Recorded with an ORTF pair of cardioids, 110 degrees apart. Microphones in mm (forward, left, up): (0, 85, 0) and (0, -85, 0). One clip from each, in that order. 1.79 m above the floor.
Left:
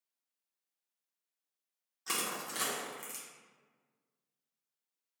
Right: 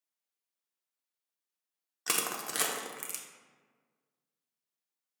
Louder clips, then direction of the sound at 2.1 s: Right 3 dB; 45° right.